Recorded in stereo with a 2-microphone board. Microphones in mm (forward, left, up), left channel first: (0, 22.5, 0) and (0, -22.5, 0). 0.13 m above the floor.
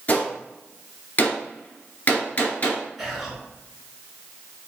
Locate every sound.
0.1 s a gunshot: 35° left (ahead or behind), 1.1 m
3.0 s whispering: 5° right (ahead or behind), 1.3 m